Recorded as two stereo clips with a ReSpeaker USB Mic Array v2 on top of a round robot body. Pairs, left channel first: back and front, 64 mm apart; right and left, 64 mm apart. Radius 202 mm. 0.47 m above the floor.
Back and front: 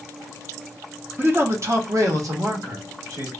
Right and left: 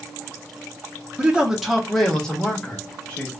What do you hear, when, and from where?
1.2 s a man speaking: 25° left, 0.9 m; by 3.3 s 15° right, 1.9 m